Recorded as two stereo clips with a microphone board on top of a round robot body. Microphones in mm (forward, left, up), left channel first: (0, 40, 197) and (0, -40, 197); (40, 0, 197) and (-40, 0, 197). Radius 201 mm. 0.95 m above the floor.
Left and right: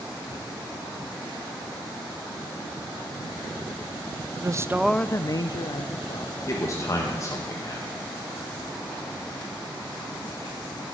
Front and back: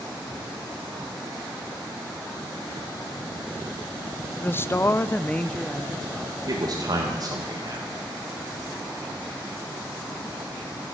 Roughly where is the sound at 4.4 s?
Ahead right.